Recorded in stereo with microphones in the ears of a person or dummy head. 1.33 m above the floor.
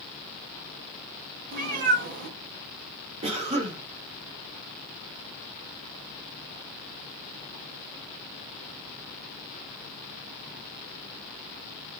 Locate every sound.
1.5 s a cat meowing: 40° right (ahead or behind), 0.7 m
3.2 s a cough: 30° right (ahead or behind), 1.0 m